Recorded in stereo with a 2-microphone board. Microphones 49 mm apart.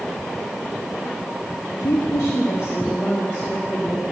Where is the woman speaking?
80° left, 0.9 m; by 4.0 s 40° left (ahead or behind), 2 m.